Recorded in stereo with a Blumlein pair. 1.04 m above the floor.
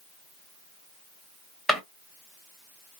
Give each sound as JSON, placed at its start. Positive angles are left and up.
{"t": 1.7, "sound": "a drawer", "azimuth_deg": -5, "distance_m": 1.0}